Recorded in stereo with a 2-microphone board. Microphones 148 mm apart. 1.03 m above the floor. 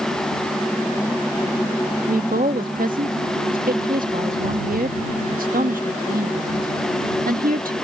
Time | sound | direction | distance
2.1 | a woman speaking | 75° right (ahead or behind) | ?